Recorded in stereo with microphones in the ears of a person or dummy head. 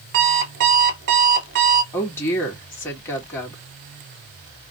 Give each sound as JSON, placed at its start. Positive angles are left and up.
{"t": 0.1, "sound": "an alarm clock", "side_deg": -60, "distance_m": 1.4}
{"t": 1.9, "sound": "a woman speaking", "side_deg": 10, "distance_m": 1.8}